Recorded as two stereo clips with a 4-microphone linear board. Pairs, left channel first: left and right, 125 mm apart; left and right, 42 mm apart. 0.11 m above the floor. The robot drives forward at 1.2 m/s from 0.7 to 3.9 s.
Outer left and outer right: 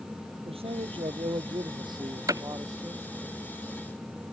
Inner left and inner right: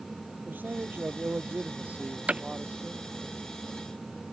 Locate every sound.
0.5 s a man speaking: 50° right (ahead or behind); by 3.3 s 25° right (ahead or behind)
2.3 s hammering: 25° right (ahead or behind); by 2.4 s 30° right (ahead or behind)